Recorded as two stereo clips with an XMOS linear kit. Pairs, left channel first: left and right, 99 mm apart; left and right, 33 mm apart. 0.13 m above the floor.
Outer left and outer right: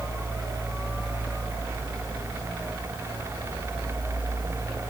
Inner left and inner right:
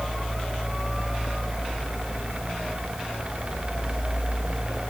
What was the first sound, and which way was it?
Only background noise.